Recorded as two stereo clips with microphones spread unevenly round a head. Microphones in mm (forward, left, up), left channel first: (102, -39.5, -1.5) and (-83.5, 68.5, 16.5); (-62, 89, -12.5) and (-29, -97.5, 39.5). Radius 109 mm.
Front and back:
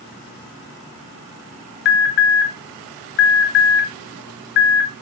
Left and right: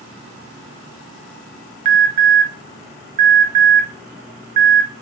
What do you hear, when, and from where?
1.9 s an alarm: 25° right, 0.6 m